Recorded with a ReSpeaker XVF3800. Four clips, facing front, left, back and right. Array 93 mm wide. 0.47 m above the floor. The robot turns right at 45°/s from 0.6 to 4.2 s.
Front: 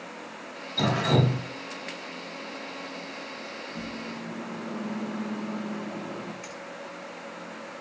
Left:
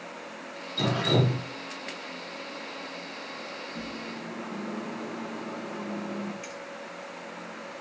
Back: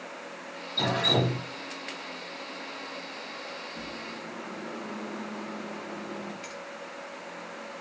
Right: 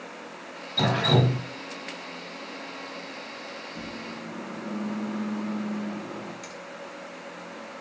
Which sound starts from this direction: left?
A finger snap, at 6.4 s.